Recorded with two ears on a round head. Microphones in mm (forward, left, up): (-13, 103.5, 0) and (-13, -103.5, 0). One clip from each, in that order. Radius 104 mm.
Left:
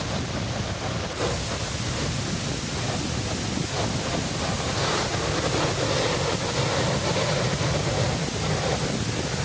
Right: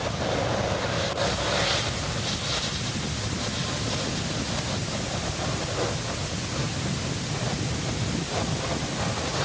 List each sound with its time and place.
Only background noise.